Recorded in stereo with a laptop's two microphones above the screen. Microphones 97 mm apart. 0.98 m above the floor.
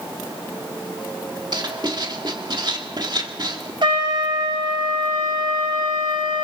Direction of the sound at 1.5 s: 50° right (ahead or behind).